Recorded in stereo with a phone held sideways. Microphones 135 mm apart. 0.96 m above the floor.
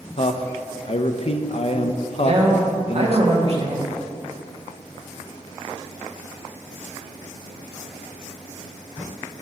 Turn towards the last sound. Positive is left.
turn(degrees=-50)  # may be behind; listen again after turning